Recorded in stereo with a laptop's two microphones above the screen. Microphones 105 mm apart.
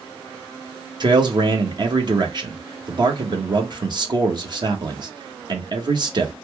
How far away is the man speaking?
About 1.2 m.